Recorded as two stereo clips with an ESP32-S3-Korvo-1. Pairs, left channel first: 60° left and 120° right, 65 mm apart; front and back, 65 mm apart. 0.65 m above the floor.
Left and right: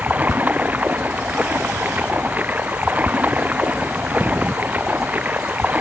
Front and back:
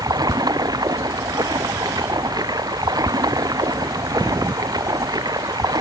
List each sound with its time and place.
0.0 s running water: 175° left